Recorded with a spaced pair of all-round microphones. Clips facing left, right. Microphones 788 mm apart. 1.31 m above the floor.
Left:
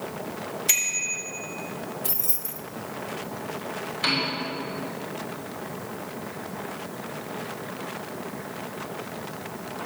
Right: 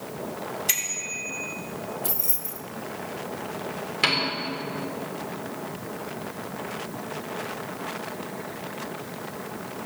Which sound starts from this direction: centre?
Keys jangling, at 2.0 s.